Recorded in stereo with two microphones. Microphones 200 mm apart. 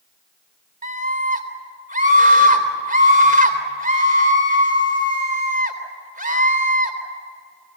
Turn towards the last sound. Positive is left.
turn(degrees=-45)  # may be behind; listen again after turning